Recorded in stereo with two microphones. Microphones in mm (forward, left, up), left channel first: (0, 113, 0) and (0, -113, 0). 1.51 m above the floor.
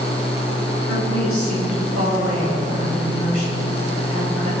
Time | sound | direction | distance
0.9 | a woman speaking | 75° right (ahead or behind) | 7.5 m